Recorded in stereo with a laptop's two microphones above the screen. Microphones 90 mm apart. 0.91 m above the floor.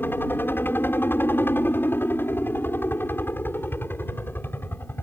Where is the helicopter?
25° left (ahead or behind).